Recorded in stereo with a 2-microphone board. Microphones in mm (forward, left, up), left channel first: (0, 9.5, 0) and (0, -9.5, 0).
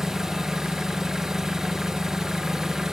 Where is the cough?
I don't hear a cough.